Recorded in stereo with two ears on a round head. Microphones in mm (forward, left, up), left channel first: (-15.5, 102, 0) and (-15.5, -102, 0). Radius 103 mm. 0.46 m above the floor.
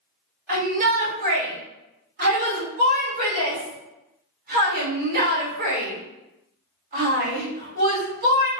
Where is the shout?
40° right (ahead or behind), 1.6 m.